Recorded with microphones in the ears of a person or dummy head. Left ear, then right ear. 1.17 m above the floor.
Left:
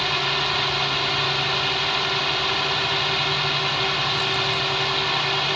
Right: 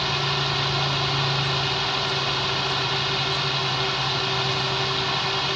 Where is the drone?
25° left (ahead or behind).